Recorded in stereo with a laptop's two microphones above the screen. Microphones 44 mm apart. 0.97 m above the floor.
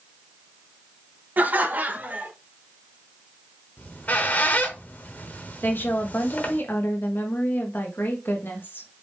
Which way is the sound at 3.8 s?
40° left (ahead or behind).